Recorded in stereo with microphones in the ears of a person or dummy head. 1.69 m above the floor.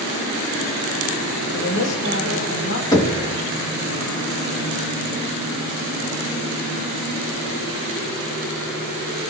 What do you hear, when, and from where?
1.5 s a woman speaking: 80° left, 4 m
2.9 s knocking: 20° left (ahead or behind), 2 m